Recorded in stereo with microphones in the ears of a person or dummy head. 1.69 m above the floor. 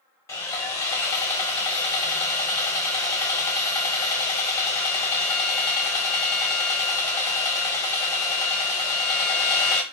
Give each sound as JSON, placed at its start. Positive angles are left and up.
{"t": 0.3, "sound": "sawing", "side_deg": 15, "distance_m": 1.0}